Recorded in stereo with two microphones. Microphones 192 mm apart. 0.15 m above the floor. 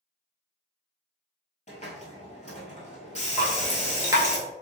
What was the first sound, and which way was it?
A hiss, 40° left (ahead or behind).